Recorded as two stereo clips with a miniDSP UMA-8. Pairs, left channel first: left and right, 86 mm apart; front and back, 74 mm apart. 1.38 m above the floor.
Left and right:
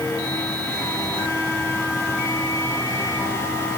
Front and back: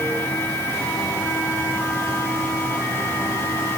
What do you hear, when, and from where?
Only background noise.